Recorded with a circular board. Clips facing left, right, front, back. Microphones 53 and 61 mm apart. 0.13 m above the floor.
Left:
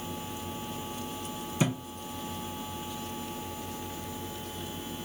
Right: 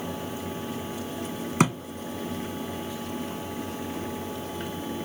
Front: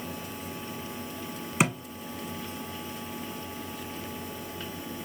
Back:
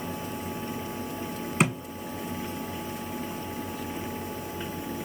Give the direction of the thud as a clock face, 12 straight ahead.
3 o'clock.